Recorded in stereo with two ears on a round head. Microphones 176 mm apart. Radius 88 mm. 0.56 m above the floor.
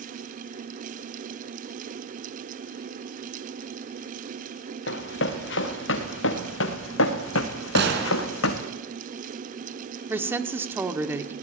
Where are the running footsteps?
65° left (ahead or behind), 3.5 m; by 8.7 s 75° left (ahead or behind), 2.5 m.